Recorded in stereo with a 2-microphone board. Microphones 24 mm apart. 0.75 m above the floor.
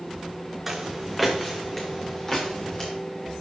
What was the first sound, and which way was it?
Footsteps, centre (ahead or behind).